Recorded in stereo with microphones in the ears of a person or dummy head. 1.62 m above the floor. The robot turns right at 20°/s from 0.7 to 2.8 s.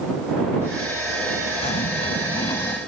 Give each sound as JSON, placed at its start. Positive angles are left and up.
{"t": 1.6, "sound": "a zipper", "side_deg": 35}